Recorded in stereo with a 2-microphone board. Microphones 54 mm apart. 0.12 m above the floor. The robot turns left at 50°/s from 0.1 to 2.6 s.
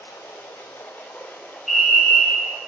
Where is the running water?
100° left, 1.4 m; by 2.7 s 25° right, 1.4 m.